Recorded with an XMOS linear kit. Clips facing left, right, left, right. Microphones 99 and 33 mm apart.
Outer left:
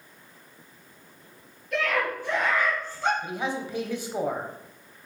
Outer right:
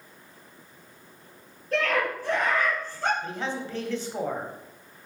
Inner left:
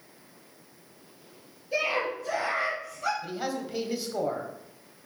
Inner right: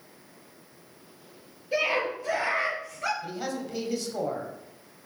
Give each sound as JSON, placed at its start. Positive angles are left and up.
{"t": 1.7, "sound": "a scream", "side_deg": -35, "distance_m": 4.0}
{"t": 3.2, "sound": "a man speaking", "side_deg": 15, "distance_m": 1.1}